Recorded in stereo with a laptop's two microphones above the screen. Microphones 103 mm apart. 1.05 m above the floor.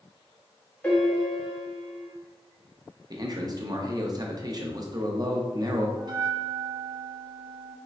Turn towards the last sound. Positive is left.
turn(degrees=-40)  # may be behind; listen again after turning